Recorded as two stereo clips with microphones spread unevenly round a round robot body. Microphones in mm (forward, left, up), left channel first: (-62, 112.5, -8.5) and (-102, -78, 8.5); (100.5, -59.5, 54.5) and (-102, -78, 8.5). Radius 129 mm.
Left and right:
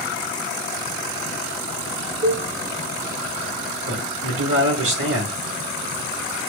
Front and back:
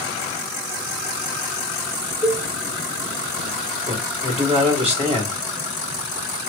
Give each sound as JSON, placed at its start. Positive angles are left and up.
{"t": 2.2, "sound": "a cowbell", "azimuth_deg": -115, "distance_m": 1.9}
{"t": 3.9, "sound": "a man speaking", "azimuth_deg": -120, "distance_m": 2.0}